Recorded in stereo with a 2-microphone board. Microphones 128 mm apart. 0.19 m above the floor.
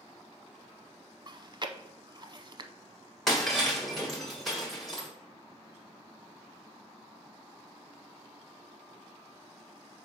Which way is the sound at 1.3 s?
40° right (ahead or behind).